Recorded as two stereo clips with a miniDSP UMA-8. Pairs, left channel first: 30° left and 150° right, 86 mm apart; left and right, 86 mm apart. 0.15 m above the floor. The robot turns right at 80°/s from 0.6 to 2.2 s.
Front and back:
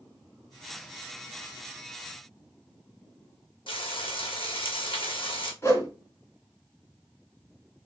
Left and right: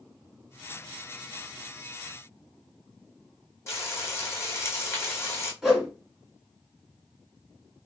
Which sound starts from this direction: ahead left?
Frying, at 3.7 s.